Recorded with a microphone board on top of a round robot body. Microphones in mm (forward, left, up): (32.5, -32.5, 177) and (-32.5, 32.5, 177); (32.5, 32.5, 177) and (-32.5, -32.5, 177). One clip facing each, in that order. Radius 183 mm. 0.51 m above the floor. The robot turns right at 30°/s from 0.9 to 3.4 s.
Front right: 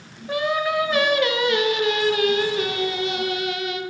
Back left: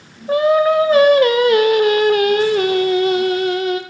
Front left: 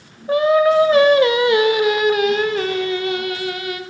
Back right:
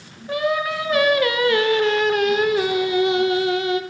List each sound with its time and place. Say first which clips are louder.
0.3 s singing: back left 9 dB, front left 8 dB; 95° left, 0.7 m; by 3.8 s 170° left, 0.7 m